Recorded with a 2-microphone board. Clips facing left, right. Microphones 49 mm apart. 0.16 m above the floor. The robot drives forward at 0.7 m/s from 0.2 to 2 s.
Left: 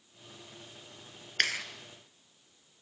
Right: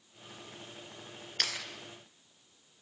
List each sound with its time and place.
1.4 s a clap: 45° left (ahead or behind), 2.5 m